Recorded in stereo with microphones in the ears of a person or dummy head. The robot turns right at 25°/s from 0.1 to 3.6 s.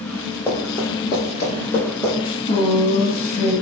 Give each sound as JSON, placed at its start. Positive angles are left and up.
{"t": 0.5, "sound": "running footsteps", "side_deg": 10, "distance_m": 1.5}
{"t": 2.2, "sound": "a woman speaking", "azimuth_deg": 20, "distance_m": 2.0}